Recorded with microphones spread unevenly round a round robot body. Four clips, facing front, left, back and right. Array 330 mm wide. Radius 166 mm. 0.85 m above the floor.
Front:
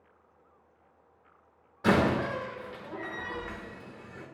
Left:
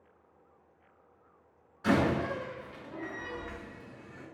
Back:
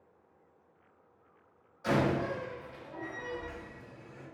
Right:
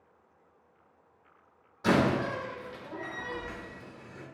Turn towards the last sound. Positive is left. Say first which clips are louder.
# right 2 dB, front 4 dB
turn(degrees=-10)